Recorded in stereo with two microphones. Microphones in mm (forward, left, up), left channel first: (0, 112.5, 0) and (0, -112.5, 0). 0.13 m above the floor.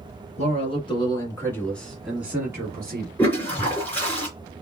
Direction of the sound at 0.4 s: 30° left (ahead or behind).